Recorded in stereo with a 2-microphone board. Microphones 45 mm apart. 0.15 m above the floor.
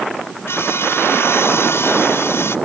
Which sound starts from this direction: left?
Sawing, at 0.5 s.